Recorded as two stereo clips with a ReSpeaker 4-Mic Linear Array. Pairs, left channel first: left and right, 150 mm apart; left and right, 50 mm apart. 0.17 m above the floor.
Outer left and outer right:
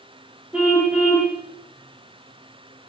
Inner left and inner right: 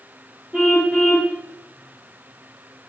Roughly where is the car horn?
Centre.